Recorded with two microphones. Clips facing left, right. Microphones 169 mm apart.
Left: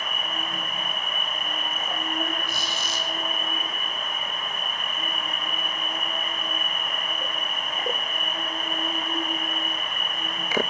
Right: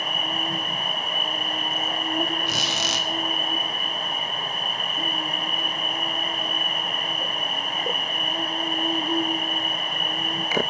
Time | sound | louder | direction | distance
0.0 | an insect | right 4 dB | 35° right (ahead or behind) | 3.5 m
2.5 | a squeak | right 4 dB | 85° right | 1.1 m